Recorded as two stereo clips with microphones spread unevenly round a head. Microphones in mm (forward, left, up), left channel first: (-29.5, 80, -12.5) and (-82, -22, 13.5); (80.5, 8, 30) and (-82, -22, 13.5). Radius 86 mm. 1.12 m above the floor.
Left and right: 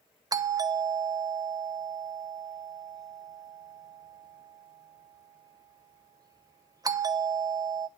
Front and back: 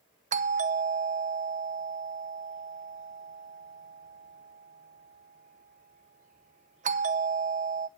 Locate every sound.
0.3 s a doorbell: 175° right, 0.7 m